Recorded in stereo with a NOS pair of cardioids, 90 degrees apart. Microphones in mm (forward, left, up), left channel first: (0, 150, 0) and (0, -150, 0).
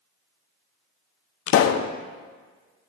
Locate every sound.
1.5 s a pop: 50° left, 0.5 m